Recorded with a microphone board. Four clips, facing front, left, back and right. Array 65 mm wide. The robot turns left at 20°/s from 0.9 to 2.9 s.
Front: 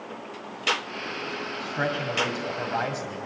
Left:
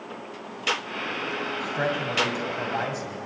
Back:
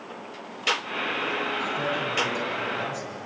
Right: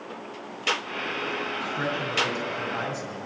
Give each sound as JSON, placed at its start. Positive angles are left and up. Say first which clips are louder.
{"t": 1.6, "sound": "a man speaking", "louder": "left 4 dB, back 1 dB", "azimuth_deg": 60, "distance_m": 2.5}